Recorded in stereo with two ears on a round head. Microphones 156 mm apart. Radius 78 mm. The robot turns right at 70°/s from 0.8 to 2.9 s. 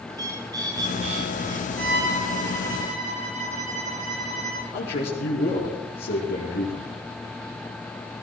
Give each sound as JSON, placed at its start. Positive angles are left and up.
{"t": 0.1, "sound": "a bird", "azimuth_deg": -155, "distance_m": 6.0}
{"t": 1.8, "sound": "a violin", "azimuth_deg": -120, "distance_m": 3.0}
{"t": 4.7, "sound": "a man speaking", "side_deg": 60, "distance_m": 5.5}